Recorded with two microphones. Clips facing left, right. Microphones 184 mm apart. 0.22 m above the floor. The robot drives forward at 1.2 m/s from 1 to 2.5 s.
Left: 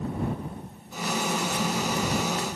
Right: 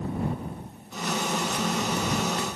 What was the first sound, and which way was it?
Only background noise.